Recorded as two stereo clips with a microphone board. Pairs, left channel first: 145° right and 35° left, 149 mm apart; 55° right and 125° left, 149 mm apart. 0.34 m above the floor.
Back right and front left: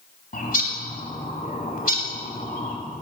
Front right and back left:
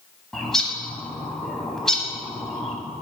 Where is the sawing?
I don't hear sawing.